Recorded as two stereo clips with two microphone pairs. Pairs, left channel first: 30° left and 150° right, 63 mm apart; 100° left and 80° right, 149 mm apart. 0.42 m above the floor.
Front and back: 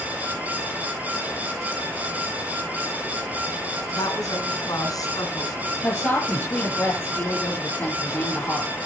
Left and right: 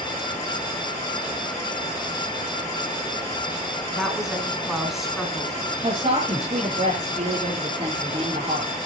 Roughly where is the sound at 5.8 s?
Ahead right.